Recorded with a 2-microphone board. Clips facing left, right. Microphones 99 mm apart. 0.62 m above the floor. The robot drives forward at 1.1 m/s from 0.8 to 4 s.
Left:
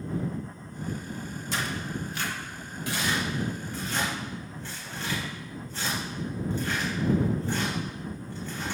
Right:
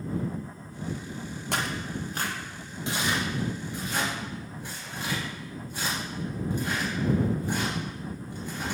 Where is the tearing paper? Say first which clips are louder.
Right 1 dB; 60° right (ahead or behind), 0.8 m; by 8.8 s 15° right (ahead or behind), 3 m.